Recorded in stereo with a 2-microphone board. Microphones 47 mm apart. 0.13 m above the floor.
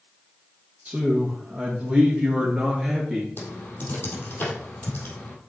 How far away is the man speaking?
About 3 m.